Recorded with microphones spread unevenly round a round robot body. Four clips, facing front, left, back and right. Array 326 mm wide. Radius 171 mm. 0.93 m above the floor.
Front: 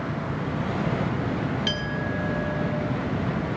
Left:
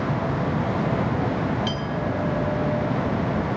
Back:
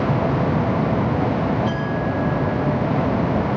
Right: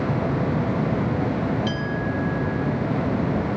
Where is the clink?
5° left, 5 m.